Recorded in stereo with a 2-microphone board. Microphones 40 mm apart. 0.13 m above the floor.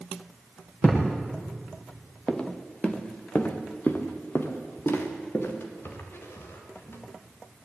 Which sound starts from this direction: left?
A thud, at 0.8 s.